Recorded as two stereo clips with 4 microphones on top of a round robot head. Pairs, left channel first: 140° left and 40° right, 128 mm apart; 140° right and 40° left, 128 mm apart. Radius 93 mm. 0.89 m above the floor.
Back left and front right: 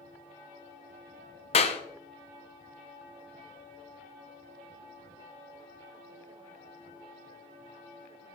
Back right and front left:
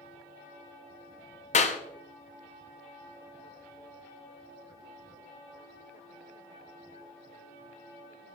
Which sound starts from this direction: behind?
A clap, at 1.5 s.